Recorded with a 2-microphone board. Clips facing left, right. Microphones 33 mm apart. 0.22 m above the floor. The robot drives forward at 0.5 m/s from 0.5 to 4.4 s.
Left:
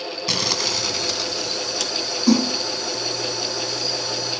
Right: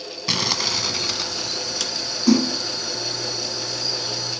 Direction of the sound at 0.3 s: 10° right (ahead or behind).